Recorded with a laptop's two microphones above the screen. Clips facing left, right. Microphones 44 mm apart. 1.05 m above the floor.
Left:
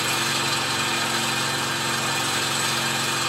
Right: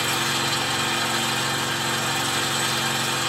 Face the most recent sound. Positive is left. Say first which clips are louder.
# even
turn(degrees=-30)  # may be behind; listen again after turning